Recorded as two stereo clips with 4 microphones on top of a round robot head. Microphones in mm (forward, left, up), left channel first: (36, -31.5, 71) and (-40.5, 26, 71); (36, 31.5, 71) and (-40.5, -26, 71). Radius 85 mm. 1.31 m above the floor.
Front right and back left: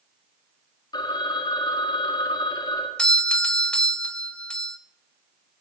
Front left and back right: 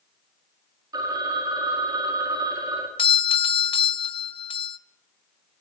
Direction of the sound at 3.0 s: 40° left.